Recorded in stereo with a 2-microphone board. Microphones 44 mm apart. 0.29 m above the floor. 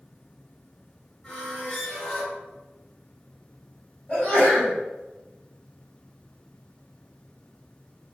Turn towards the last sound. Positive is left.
turn(degrees=35)  # may be behind; listen again after turning